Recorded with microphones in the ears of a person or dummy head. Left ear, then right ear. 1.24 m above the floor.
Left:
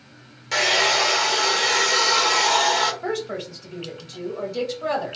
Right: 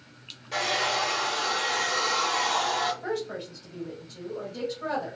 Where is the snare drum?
I don't hear a snare drum.